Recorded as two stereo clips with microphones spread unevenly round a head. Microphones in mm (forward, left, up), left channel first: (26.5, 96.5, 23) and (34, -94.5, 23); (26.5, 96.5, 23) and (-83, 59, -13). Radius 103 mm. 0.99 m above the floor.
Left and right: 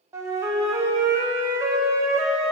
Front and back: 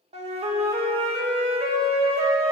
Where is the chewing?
No chewing in this recording.